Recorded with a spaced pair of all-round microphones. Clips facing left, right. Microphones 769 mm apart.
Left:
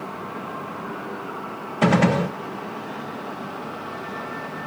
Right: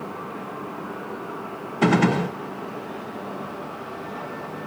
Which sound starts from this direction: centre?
A gunshot, at 1.8 s.